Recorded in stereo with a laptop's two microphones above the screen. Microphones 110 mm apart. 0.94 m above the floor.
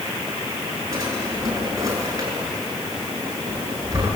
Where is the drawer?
30° right (ahead or behind), 7 m.